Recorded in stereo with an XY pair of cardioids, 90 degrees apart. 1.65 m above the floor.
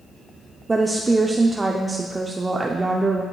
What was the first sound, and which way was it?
A woman speaking, 25° right.